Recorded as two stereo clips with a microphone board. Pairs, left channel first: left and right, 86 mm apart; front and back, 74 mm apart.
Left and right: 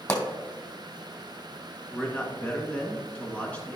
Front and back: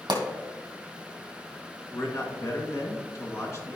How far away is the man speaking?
About 1.8 m.